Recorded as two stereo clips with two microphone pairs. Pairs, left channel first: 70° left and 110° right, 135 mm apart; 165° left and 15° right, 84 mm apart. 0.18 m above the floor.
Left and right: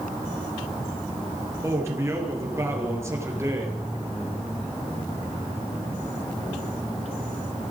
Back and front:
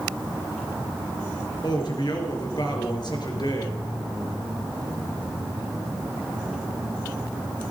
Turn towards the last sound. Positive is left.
turn(degrees=-175)